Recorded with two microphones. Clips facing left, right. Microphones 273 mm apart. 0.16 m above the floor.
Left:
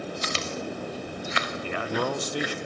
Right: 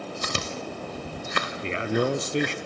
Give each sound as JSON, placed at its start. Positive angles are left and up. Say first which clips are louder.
{"t": 0.2, "sound": "chewing", "louder": "left 1 dB", "side_deg": -50, "distance_m": 3.0}
{"t": 1.6, "sound": "a man speaking", "louder": "right 4 dB", "side_deg": -25, "distance_m": 1.4}